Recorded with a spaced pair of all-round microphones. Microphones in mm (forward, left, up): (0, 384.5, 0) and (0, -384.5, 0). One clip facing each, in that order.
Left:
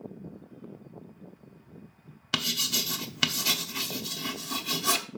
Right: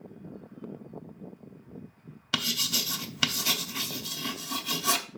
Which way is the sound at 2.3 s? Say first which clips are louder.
Even; centre (ahead or behind).